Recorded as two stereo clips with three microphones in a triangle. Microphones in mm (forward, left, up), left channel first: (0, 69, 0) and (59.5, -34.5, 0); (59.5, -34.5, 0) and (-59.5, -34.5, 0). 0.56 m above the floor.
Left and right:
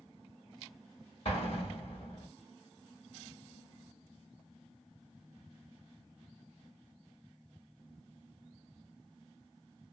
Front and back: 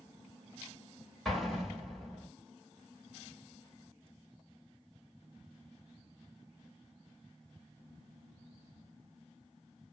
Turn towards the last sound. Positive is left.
turn(degrees=90)